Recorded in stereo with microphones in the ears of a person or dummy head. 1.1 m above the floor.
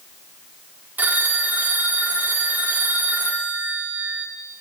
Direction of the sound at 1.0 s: 20° right (ahead or behind).